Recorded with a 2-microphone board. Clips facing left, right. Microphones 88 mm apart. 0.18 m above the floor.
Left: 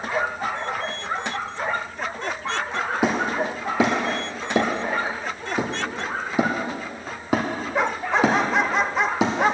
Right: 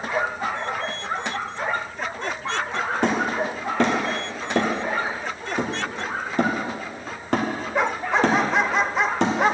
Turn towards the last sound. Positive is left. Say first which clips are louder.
# even
turn(degrees=5)  # may be behind; listen again after turning